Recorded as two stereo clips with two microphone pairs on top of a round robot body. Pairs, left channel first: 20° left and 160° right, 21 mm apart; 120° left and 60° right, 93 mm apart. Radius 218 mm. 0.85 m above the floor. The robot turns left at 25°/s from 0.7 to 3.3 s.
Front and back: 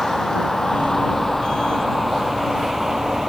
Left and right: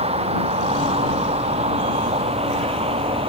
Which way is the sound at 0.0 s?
60° right.